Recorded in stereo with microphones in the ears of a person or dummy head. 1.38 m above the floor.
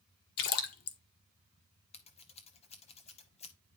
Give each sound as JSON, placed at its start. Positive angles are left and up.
{"t": 0.4, "sound": "a splash", "side_deg": 50, "distance_m": 1.3}
{"t": 1.9, "sound": "scissors", "side_deg": 30, "distance_m": 0.9}